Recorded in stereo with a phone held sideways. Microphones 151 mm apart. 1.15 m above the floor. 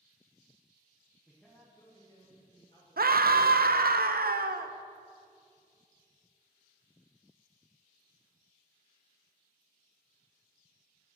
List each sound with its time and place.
1.3 s a man speaking: 10° right (ahead or behind), 0.9 m; by 3.5 s 40° left (ahead or behind), 2.5 m
3.0 s a scream: 75° right (ahead or behind), 0.5 m